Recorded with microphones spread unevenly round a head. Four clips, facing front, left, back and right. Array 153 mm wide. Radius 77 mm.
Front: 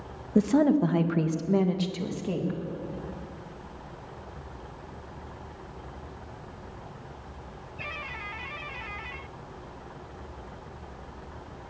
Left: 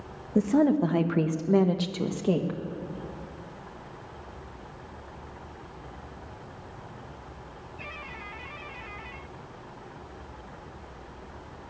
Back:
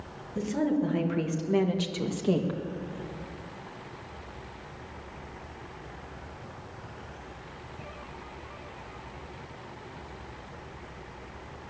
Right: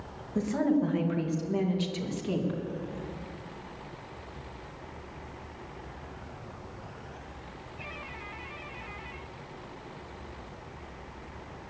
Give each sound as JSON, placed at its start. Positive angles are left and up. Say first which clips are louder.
{"t": 0.3, "sound": "a woman speaking", "louder": "left 5 dB, front 6 dB", "azimuth_deg": 40, "distance_m": 1.5}